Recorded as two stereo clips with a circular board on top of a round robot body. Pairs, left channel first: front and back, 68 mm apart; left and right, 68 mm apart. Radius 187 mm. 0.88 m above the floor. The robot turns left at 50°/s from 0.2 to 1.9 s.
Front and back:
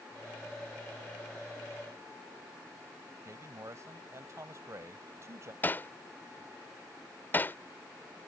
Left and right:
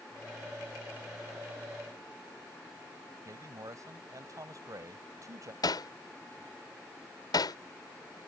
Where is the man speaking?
130° right.